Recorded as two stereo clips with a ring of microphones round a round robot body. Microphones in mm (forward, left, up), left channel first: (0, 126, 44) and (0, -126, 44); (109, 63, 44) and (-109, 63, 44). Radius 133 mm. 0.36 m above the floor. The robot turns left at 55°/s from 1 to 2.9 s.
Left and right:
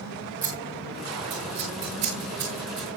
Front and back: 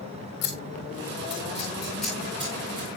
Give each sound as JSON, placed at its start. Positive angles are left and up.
{"t": 0.4, "sound": "scissors", "azimuth_deg": -30, "distance_m": 9.5}